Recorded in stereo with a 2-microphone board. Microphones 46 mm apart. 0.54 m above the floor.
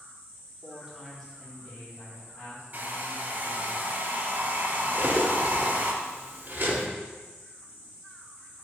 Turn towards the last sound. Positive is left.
turn(degrees=-45)  # may be behind; listen again after turning